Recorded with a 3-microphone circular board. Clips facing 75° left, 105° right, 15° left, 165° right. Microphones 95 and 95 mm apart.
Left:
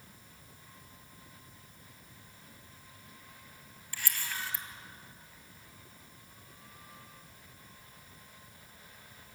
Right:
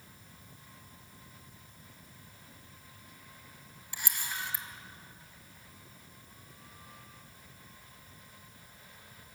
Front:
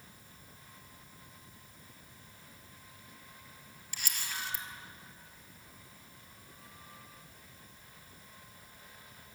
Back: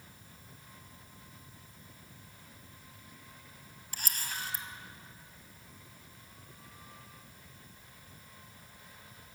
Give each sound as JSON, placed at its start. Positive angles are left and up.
{"t": 3.9, "sound": "a camera shutter", "azimuth_deg": -165, "distance_m": 2.0}